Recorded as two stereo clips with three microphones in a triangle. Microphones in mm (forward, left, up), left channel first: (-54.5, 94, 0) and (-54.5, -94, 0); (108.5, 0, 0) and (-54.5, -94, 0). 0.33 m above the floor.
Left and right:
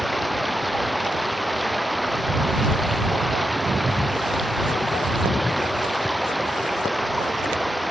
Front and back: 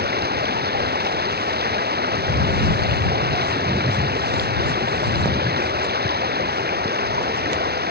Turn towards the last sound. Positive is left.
turn(degrees=180)